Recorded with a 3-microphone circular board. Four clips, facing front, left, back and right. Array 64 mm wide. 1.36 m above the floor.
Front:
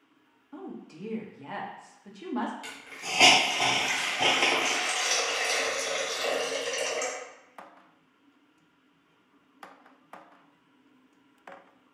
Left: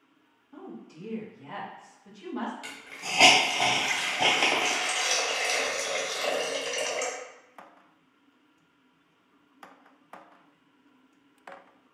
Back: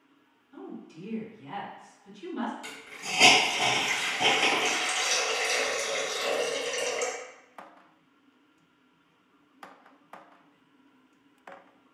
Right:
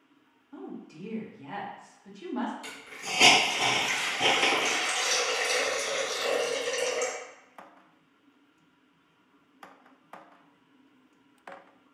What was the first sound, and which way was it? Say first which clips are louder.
A woman speaking: right 2 dB, front 1 dB; 15° right.